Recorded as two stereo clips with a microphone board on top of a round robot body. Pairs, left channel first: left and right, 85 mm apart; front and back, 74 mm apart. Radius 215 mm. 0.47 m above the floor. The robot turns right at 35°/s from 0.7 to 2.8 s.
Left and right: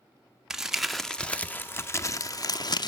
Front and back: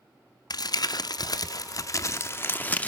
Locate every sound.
0.5 s crumpling: 5° right, 0.7 m; by 2.9 s 65° left, 0.7 m